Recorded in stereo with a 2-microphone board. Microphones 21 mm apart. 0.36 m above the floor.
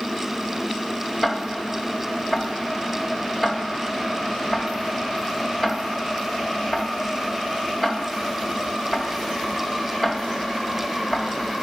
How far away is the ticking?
About 1.4 m.